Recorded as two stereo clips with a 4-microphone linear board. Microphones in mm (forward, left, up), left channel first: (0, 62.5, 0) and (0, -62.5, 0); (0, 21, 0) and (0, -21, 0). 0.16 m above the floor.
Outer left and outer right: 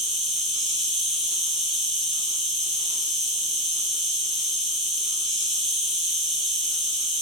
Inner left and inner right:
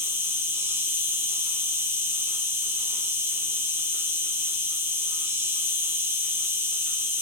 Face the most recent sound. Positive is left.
turn(degrees=-45)  # may be behind; listen again after turning